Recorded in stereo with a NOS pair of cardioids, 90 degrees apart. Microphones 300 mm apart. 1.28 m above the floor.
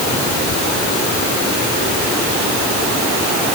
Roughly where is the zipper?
I don't hear a zipper.